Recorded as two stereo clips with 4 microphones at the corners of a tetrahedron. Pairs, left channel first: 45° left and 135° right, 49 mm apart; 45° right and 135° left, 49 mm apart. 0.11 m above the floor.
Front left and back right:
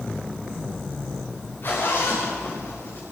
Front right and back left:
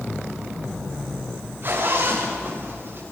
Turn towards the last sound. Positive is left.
turn(degrees=90)